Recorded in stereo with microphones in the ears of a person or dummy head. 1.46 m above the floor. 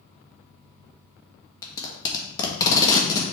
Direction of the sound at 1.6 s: 25° left (ahead or behind).